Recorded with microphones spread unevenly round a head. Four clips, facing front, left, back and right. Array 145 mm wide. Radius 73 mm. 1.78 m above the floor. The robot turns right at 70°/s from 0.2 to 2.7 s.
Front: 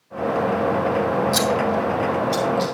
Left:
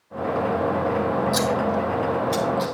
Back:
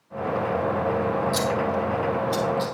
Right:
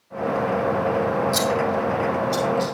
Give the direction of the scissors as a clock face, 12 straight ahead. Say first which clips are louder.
Even, front 4 dB; 12 o'clock.